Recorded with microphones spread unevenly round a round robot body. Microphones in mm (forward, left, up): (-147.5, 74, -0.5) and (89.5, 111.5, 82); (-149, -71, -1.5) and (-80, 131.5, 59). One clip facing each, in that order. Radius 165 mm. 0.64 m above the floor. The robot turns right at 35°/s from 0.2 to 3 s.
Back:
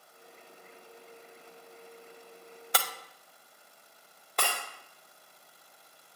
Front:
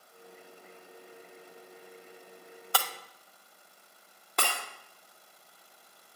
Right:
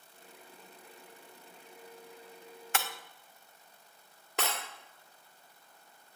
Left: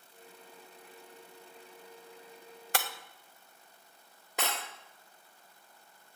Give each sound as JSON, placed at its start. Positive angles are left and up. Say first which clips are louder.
{"t": 2.7, "sound": "breaking glass", "louder": "even, left 1 dB", "azimuth_deg": 110, "distance_m": 0.7}
{"t": 4.4, "sound": "breaking glass", "louder": "even, right 1 dB", "azimuth_deg": -5, "distance_m": 1.4}